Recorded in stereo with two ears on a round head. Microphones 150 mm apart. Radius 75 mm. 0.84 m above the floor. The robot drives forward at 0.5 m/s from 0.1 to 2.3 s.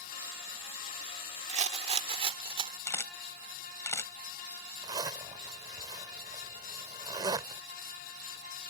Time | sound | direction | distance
1.5 | a rattle | 45° right (ahead or behind) | ?
2.9 | a camera shutter | 15° left (ahead or behind) | ?
4.8 | a zipper | 25° right (ahead or behind) | ?